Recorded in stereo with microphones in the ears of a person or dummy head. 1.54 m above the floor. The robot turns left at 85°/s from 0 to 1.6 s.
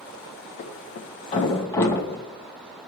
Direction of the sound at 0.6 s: 50° left (ahead or behind).